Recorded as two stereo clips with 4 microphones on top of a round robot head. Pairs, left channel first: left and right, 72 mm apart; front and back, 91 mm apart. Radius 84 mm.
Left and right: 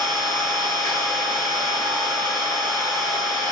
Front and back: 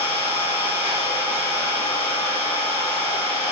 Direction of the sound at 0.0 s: 75° right.